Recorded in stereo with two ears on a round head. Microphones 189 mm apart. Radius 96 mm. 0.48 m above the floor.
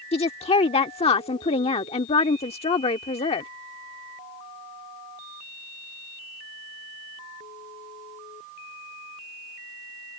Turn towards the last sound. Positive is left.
turn(degrees=30)  # may be behind; listen again after turning